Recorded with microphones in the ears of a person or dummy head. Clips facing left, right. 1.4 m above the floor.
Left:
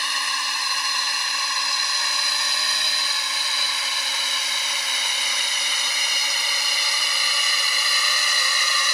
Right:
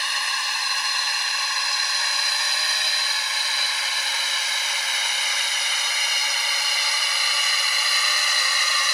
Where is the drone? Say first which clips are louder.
Left 1 dB; 75° left (ahead or behind); by 8.9 s 80° left.